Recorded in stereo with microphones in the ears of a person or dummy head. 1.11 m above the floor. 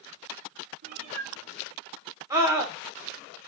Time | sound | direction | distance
0.8 | a cat meowing | 40° right (ahead or behind) | 1.4 m
2.3 | a scream | 15° right (ahead or behind) | 2.5 m